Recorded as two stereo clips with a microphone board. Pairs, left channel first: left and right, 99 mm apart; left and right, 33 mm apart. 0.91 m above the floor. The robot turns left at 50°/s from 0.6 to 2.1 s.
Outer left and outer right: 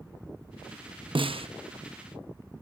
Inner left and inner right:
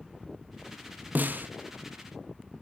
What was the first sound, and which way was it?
A snare drum, 60° right (ahead or behind).